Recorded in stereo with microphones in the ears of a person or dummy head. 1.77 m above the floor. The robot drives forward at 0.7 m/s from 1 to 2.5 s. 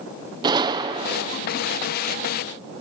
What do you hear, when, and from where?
0.4 s a gunshot: 20° right (ahead or behind), 1.1 m